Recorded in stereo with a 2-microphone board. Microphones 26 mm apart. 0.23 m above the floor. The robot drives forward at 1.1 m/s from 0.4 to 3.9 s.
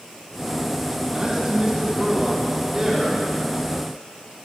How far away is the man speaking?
About 2.5 m.